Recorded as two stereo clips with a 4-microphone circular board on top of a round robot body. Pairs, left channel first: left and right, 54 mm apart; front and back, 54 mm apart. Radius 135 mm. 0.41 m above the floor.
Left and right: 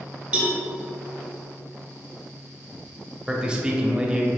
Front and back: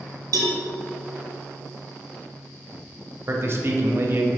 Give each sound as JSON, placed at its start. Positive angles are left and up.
{"t": 0.3, "sound": "a cowbell", "azimuth_deg": -160, "distance_m": 1.0}
{"t": 3.3, "sound": "a man speaking", "azimuth_deg": -160, "distance_m": 1.2}